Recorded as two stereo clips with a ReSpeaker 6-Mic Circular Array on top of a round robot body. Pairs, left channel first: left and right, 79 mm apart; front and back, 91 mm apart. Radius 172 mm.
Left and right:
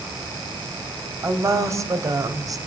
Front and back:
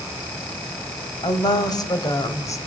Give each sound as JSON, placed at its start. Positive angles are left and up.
{"t": 1.2, "sound": "a woman speaking", "azimuth_deg": -40, "distance_m": 4.0}